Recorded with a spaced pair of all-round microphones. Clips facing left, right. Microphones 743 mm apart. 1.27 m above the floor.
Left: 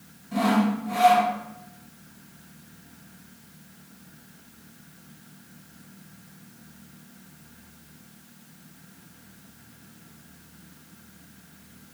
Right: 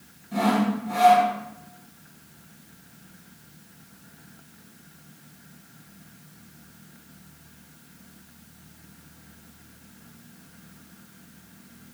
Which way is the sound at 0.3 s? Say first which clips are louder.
Left 1 dB; 5° left (ahead or behind).